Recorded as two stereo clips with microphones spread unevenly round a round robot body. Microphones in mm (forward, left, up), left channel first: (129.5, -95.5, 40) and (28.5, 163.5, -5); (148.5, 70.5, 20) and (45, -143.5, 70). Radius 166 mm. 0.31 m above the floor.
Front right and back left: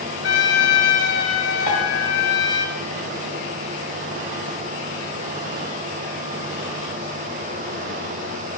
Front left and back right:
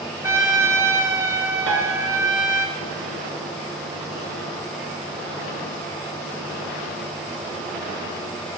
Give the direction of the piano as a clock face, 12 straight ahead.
3 o'clock.